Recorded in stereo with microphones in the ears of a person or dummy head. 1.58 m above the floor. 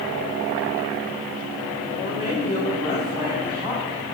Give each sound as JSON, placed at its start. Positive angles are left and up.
{"t": 1.9, "sound": "a woman speaking", "side_deg": 40, "distance_m": 1.0}